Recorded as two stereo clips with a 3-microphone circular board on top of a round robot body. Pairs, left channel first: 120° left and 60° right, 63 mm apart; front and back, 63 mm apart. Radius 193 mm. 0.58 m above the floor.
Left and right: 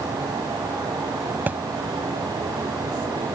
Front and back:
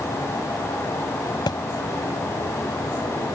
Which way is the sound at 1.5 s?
5° left.